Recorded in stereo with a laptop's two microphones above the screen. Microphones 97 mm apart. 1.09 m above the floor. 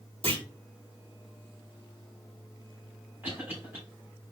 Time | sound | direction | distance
0.2 | a clunk | 80° right | 3 m
3.2 | a cough | 25° right (ahead or behind) | 3 m